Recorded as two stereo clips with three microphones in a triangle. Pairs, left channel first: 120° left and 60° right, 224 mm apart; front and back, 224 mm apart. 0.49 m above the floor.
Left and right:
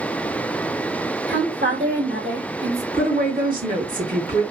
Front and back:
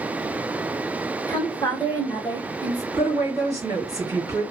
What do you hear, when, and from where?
1.3 s a woman speaking: 70° right, 1.5 m
2.9 s a woman speaking: 105° right, 2.0 m